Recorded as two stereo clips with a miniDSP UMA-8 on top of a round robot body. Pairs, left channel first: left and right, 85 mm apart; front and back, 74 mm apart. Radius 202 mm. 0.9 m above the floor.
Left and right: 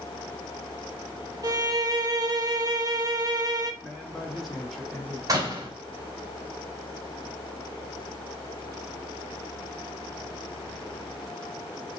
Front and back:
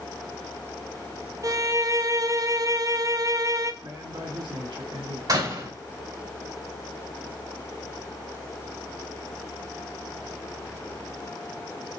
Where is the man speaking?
Straight behind, 3 m.